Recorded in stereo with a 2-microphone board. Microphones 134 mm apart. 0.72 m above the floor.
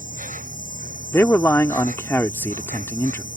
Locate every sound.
0.0 s an insect: 75° right (ahead or behind)
1.1 s a man speaking: 20° left (ahead or behind)